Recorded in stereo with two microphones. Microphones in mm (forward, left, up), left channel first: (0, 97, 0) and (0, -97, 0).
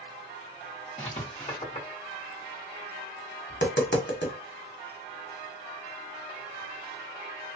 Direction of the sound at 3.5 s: 65° left (ahead or behind).